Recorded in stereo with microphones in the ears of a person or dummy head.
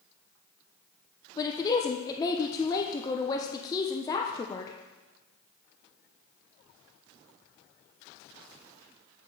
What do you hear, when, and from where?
1.4 s a woman speaking: 20° left (ahead or behind), 0.7 m